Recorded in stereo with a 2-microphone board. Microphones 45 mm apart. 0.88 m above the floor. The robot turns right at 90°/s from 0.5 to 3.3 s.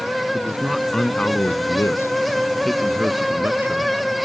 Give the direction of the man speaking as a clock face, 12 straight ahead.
1 o'clock.